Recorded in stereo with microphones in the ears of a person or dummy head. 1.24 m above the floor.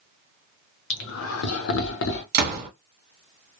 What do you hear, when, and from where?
0.9 s laughter: 65° left (ahead or behind), 0.8 m; by 2.2 s 60° left (ahead or behind), 0.9 m
2.3 s a door slam: 55° right (ahead or behind), 1.3 m